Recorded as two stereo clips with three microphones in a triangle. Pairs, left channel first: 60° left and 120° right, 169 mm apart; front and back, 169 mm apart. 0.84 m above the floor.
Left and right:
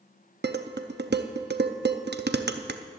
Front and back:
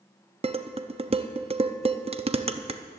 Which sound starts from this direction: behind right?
Dishes clattering, at 0.4 s.